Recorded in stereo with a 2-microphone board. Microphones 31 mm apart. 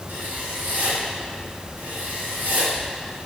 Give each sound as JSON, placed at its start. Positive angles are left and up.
{"t": 0.1, "sound": "writing", "side_deg": -75, "distance_m": 3.0}